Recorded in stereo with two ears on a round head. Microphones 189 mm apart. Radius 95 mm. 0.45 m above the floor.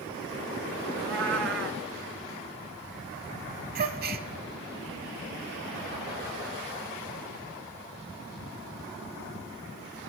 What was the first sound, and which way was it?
A cat meowing, 60° right (ahead or behind).